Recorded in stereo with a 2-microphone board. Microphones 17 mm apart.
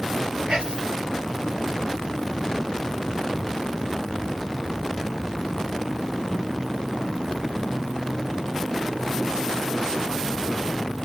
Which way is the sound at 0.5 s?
40° right (ahead or behind).